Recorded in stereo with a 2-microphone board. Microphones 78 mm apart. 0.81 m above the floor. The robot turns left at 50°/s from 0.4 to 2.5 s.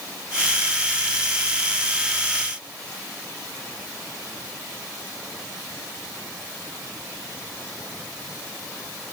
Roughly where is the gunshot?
I don't hear a gunshot.